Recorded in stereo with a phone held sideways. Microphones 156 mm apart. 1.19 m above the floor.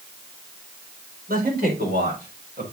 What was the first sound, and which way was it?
A man speaking, 75° right (ahead or behind).